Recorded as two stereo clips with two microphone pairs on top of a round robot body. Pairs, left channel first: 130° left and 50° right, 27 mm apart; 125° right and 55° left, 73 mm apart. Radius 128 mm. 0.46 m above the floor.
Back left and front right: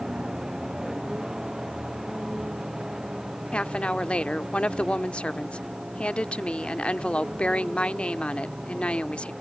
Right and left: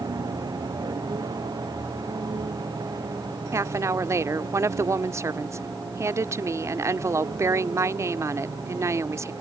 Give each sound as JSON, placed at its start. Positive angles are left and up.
{"t": 0.0, "sound": "a vehicle", "azimuth_deg": 20}
{"t": 3.5, "sound": "a woman speaking", "azimuth_deg": 95}